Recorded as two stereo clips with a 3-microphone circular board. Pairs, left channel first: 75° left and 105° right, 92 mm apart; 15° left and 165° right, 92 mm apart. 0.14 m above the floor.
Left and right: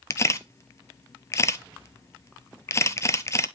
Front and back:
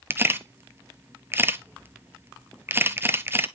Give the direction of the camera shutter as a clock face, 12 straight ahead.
8 o'clock.